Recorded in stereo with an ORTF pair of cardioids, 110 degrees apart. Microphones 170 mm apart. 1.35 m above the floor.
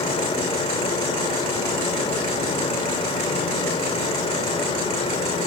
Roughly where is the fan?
Ahead left.